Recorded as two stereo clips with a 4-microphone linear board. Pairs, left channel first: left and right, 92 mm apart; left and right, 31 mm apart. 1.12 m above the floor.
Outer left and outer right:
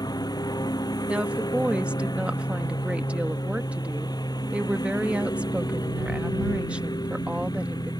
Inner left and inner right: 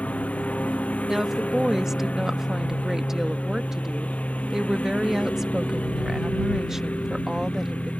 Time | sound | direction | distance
0.0 | a lawn mower | 50° left (ahead or behind) | ?
1.1 | a woman speaking | 15° right (ahead or behind) | ?